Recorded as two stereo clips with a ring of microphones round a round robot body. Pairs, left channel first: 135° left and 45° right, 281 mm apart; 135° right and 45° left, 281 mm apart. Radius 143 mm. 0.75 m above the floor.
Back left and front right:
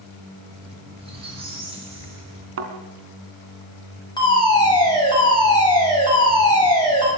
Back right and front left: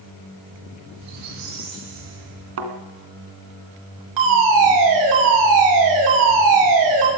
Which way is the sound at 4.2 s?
60° left.